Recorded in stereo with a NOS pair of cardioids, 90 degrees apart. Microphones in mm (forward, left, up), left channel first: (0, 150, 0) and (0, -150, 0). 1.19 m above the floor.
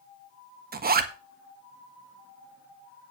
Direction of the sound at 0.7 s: 35° right.